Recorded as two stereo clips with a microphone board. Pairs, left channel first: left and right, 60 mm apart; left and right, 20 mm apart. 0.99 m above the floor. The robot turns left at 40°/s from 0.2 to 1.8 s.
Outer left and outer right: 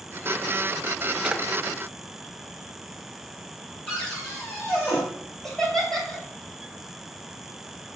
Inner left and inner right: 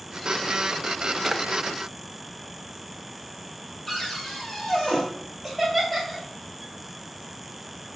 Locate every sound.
1.2 s a drawer: 10° right (ahead or behind), 0.5 m; by 1.4 s 20° right (ahead or behind), 0.5 m
3.9 s a cupboard door: 30° left (ahead or behind), 5 m
5.4 s laughter: 5° left (ahead or behind), 3 m